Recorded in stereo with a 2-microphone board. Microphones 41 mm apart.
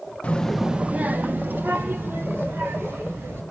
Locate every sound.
0.2 s a child speaking: 35° left (ahead or behind), 0.6 m; by 3.4 s 75° right (ahead or behind), 3.5 m